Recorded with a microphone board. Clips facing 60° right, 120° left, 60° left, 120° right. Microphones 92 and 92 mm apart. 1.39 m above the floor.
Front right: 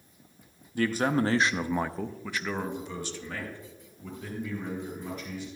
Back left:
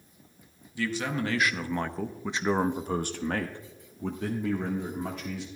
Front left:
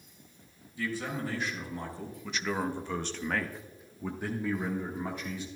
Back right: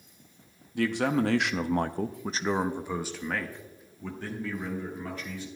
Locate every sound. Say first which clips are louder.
0.8 s a man speaking: front right 5 dB, back right 9 dB; 105° right, 0.9 m; by 5.5 s 130° left, 1.9 m